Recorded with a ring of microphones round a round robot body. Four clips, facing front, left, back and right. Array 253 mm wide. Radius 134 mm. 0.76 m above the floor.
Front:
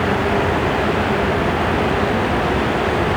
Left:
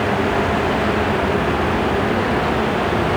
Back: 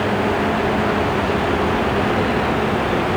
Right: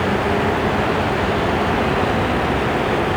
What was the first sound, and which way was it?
Only background noise.